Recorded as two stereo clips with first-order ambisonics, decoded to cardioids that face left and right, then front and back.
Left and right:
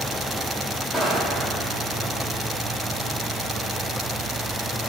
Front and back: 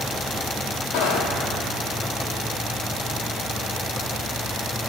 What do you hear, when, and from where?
0.9 s footsteps: 15° left, 1.0 m